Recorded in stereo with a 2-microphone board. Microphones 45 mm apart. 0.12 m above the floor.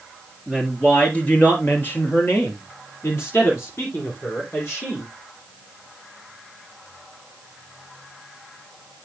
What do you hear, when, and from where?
0.5 s a woman speaking: 10° left (ahead or behind), 2 m; by 5.1 s 65° left (ahead or behind), 4.5 m